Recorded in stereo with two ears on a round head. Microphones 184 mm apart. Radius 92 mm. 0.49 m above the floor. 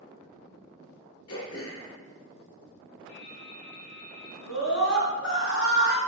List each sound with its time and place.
1.3 s throat clearing: 85° left, 3.5 m
3.1 s dripping: 50° left (ahead or behind), 4.5 m
4.5 s a scream: 60° left (ahead or behind), 3.5 m